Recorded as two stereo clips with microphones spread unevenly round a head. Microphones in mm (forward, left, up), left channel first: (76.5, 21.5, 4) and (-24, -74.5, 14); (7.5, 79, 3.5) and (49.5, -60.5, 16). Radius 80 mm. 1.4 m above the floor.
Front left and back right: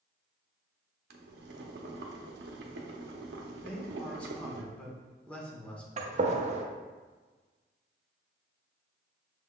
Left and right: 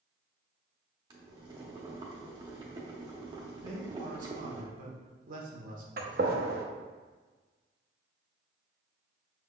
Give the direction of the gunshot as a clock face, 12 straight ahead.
3 o'clock.